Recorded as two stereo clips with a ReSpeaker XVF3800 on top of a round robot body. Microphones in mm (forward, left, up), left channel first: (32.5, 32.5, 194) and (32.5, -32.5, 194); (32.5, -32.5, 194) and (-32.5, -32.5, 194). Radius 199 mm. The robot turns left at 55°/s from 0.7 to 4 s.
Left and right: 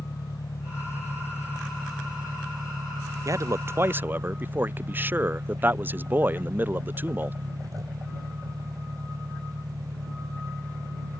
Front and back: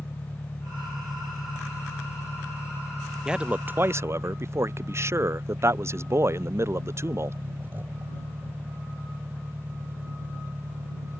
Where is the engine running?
60° left; by 11.2 s 120° right.